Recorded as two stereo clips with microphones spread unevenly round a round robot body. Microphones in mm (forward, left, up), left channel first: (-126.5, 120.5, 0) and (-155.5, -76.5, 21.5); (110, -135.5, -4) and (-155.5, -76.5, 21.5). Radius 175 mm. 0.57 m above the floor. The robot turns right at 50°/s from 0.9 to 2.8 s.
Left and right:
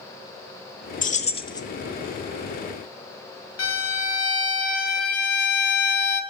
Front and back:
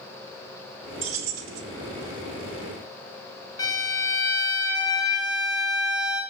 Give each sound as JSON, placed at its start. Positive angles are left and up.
{"t": 1.0, "sound": "keys jangling", "azimuth_deg": 115, "distance_m": 0.7}
{"t": 3.6, "sound": "a violin", "azimuth_deg": 70, "distance_m": 1.0}